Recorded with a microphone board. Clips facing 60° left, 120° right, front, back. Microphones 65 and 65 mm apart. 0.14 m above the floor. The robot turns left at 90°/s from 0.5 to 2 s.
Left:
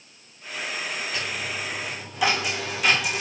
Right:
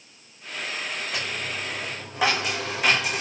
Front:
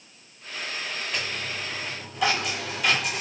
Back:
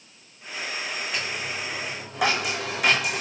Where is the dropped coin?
95° right, 5.5 m; by 3.2 s 175° right, 5.5 m.